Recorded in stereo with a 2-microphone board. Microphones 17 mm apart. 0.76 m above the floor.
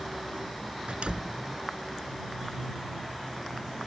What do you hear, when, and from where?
0.9 s a door slam: 85° right